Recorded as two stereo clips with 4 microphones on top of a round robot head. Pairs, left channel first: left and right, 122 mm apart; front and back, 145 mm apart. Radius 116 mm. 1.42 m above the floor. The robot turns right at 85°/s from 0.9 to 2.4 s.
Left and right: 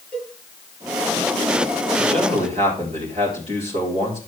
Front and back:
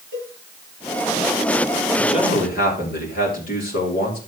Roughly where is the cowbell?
Behind.